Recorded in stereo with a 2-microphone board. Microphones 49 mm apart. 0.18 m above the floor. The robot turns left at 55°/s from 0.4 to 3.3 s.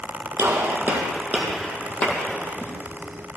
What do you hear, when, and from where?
0.4 s a gunshot: 60° right (ahead or behind), 2.0 m; by 2.7 s 65° left (ahead or behind), 2.0 m